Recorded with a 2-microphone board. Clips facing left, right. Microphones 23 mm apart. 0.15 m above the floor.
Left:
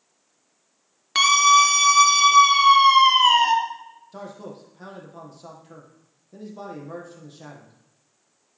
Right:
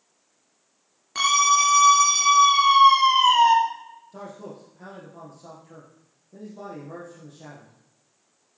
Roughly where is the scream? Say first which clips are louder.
Left 4 dB; left.